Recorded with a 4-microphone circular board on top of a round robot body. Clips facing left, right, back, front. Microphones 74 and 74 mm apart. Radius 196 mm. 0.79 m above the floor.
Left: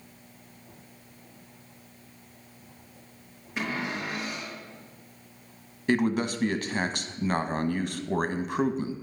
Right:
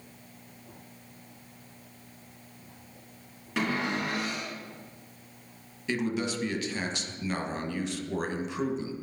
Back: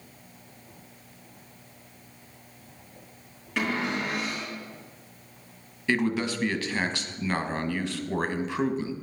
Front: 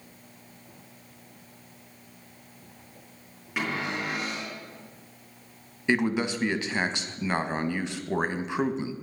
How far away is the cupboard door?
About 4.5 m.